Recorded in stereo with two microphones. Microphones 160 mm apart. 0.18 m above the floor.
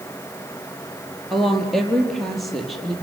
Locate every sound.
1.3 s a woman speaking: centre (ahead or behind), 4.5 m